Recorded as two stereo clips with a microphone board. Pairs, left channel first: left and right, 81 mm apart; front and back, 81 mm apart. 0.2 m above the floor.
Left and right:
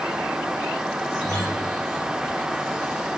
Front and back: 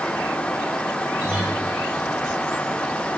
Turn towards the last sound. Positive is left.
turn(degrees=125)